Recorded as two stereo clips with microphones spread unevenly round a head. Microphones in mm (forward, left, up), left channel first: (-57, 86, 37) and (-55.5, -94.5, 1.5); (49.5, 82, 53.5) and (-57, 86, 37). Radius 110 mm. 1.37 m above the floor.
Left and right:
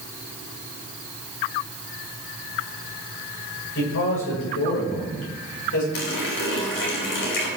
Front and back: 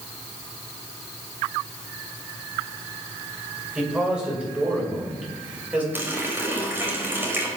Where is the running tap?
105° left, 4 m.